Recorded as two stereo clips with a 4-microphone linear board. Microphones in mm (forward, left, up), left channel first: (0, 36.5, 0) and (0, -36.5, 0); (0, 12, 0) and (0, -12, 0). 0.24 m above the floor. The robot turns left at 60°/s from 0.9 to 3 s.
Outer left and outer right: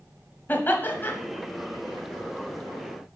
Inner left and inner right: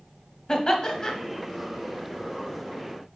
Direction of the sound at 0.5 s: 30° left (ahead or behind).